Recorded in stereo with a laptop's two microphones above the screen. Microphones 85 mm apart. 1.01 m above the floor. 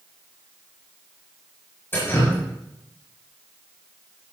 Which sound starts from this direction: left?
Dripping, at 1.9 s.